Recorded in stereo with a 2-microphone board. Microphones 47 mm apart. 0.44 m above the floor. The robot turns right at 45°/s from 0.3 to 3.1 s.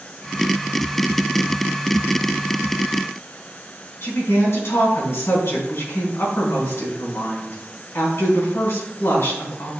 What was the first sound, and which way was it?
A woman speaking, 70° left (ahead or behind).